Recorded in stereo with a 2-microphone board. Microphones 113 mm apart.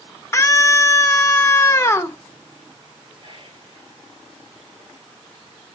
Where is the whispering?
45° right (ahead or behind), 3.5 m.